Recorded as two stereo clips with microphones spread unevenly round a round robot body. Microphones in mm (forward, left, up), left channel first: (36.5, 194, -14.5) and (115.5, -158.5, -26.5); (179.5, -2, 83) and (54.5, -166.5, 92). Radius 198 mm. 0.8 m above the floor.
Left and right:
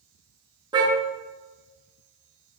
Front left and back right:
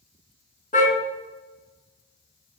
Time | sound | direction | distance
0.7 | a car horn | straight ahead | 6.5 m